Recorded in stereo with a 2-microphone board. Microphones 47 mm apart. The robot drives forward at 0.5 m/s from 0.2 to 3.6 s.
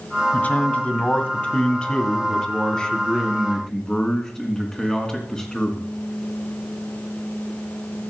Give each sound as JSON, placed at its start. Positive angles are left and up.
{"t": 0.3, "sound": "a man speaking", "side_deg": 35, "distance_m": 1.2}